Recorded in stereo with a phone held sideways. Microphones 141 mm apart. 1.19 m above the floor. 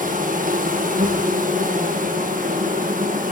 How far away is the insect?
About 1.2 m.